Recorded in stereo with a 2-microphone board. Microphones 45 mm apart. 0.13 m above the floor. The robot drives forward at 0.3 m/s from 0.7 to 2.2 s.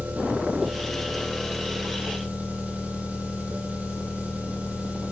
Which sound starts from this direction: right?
An engine running, at 0.0 s.